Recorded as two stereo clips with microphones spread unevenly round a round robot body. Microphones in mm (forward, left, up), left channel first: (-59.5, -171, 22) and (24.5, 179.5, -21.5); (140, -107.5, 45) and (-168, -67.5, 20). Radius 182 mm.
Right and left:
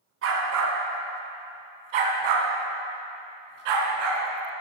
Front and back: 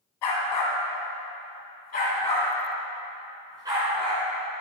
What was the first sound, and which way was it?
A dog barking, 20° left.